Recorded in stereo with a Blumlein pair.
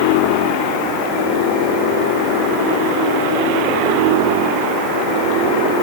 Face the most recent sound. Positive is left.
No sound to turn to.